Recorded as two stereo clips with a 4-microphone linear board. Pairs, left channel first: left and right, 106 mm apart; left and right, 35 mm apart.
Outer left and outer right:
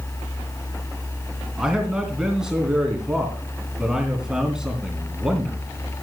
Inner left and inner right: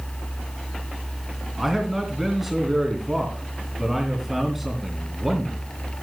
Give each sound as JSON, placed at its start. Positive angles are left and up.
{"t": 1.6, "sound": "a man speaking", "side_deg": -5, "distance_m": 3.0}